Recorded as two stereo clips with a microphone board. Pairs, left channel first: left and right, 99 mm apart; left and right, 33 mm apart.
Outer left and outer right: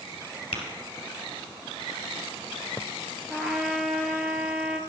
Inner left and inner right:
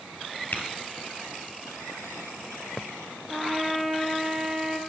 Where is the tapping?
65° left (ahead or behind), 2.5 m.